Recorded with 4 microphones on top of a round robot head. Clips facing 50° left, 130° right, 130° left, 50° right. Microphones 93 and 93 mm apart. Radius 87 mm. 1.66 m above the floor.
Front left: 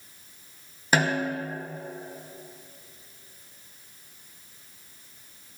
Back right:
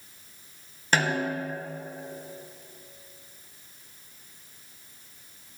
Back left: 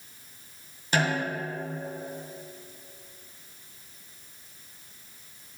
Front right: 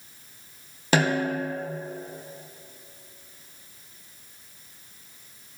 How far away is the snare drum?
About 1.1 m.